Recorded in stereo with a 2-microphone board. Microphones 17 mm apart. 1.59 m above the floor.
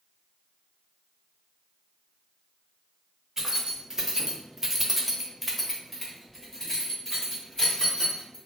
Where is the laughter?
No laughter in this recording.